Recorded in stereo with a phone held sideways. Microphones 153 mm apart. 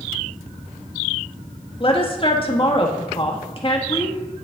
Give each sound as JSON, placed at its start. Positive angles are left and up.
{"t": 1.8, "sound": "a woman speaking", "side_deg": 35, "distance_m": 1.1}